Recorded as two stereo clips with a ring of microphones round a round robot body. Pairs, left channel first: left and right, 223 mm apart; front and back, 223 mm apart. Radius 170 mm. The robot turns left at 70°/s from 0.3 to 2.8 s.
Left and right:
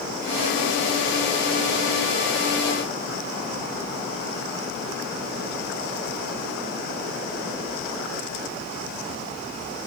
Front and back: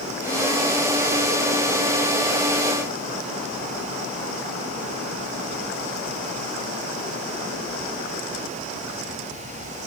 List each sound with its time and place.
Only background noise.